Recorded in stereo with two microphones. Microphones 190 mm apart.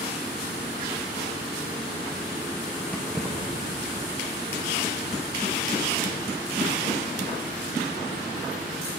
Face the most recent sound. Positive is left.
turn(degrees=-70)  # may be behind; listen again after turning